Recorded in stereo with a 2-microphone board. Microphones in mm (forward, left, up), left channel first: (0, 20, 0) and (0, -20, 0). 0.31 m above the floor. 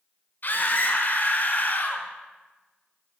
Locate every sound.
0.4 s a scream: 50° left (ahead or behind), 1.6 m